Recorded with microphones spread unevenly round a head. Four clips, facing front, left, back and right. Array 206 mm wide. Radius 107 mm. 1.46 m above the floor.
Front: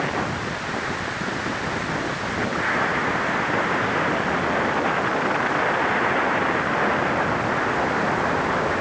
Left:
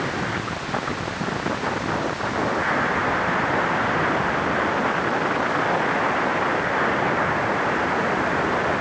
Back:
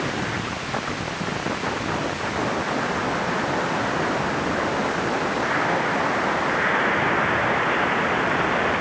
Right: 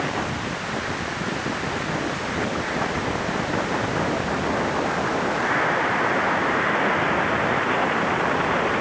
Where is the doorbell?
No doorbell in this recording.